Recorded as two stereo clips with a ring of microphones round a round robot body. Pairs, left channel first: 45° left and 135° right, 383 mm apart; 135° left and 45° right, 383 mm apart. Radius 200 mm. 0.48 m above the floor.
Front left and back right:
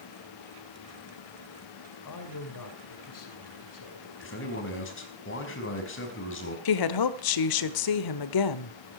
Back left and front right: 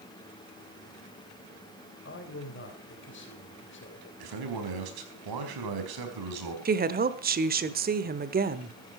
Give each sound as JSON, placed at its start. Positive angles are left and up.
{"t": 2.0, "sound": "a man speaking", "azimuth_deg": 75, "distance_m": 3.0}
{"t": 4.2, "sound": "a man speaking", "azimuth_deg": -15, "distance_m": 4.5}
{"t": 6.7, "sound": "a woman speaking", "azimuth_deg": 20, "distance_m": 1.5}